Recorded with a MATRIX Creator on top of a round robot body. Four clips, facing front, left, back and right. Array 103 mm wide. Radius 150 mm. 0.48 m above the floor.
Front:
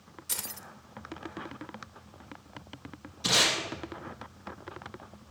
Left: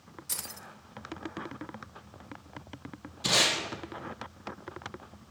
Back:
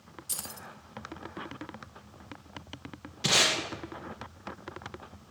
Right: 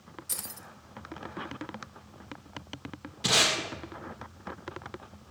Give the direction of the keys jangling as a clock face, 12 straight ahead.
11 o'clock.